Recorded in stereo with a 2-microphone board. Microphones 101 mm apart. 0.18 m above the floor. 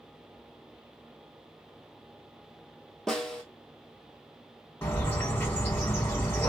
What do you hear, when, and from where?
3.1 s a snare drum: 5° left (ahead or behind), 1.1 m
4.8 s a bird: 25° left (ahead or behind), 1.6 m